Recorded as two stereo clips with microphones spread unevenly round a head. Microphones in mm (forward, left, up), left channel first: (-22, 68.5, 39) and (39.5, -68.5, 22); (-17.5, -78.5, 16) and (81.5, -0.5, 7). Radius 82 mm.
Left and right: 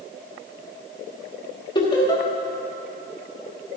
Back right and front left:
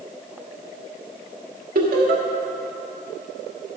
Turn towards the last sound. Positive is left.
turn(degrees=55)